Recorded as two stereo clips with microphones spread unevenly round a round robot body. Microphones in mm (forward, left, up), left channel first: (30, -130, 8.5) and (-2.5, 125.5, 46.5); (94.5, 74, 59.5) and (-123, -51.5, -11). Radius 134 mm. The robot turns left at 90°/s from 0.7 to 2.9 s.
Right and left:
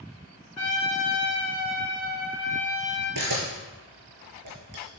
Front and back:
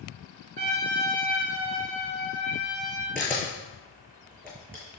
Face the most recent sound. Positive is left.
turn(degrees=115)